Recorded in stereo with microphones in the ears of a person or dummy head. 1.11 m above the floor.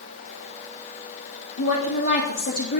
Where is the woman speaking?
55° left (ahead or behind), 2 m.